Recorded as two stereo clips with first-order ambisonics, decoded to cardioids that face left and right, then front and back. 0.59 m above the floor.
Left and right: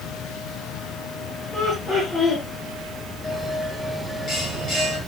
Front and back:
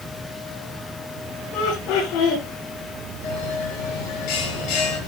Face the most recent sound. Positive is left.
turn(degrees=20)